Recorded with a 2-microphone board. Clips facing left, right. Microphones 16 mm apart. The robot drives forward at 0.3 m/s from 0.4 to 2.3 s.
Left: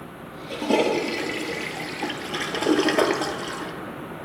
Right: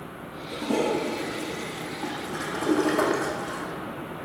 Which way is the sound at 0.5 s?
55° left (ahead or behind).